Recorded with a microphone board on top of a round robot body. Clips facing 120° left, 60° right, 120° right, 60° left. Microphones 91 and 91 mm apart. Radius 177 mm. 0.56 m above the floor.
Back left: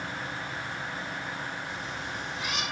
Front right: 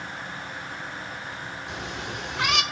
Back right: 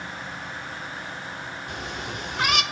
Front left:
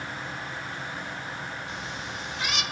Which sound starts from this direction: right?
A cat meowing, at 1.7 s.